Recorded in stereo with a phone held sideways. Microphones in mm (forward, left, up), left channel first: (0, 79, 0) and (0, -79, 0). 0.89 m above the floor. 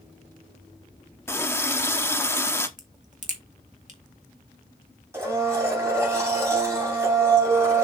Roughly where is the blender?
Centre.